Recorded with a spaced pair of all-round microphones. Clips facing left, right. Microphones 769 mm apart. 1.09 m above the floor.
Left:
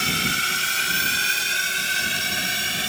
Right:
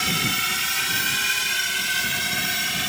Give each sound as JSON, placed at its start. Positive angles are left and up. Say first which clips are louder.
{"t": 0.0, "sound": "a drone", "louder": "even", "side_deg": -35}